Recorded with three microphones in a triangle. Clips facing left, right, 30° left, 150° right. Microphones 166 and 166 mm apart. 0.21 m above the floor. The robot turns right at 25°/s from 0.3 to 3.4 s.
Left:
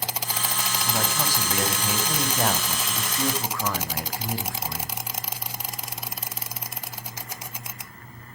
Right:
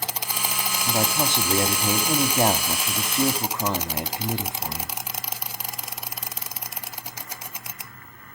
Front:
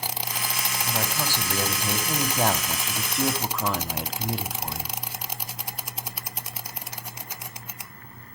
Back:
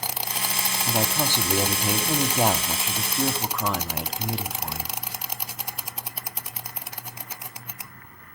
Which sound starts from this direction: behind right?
A man speaking, at 0.9 s.